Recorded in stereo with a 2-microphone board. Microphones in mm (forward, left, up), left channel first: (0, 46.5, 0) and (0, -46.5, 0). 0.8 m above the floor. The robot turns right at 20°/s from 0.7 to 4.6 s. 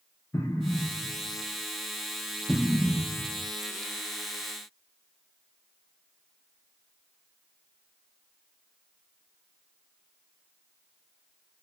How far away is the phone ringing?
No phone ringing in this recording.